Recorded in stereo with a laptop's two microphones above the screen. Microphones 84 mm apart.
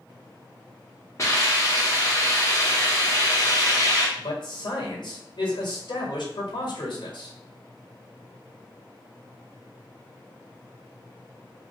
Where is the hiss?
40° left (ahead or behind), 1.0 m.